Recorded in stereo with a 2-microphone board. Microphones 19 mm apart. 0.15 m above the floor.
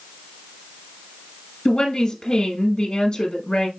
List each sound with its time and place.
1.6 s a woman speaking: 40° left (ahead or behind), 1.5 m